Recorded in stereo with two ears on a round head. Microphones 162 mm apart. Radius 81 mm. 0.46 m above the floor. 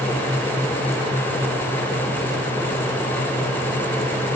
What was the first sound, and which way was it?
Only background noise.